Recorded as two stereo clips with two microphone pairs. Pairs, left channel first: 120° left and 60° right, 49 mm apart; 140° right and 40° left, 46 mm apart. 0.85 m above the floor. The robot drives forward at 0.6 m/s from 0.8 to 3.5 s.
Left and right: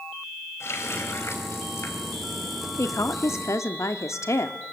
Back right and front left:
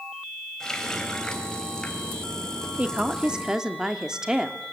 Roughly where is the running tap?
Behind left.